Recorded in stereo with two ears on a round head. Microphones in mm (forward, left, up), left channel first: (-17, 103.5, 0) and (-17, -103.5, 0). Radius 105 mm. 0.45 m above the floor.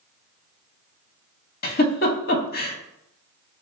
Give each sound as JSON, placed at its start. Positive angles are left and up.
{"t": 1.6, "sound": "a giggle", "side_deg": 45, "distance_m": 0.5}